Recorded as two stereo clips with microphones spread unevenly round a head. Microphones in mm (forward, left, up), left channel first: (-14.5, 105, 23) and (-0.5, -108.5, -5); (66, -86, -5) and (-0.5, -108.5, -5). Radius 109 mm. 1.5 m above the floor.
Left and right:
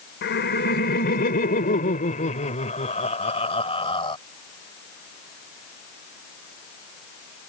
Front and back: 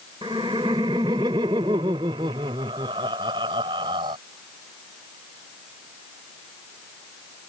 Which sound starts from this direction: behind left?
Laughter, at 0.2 s.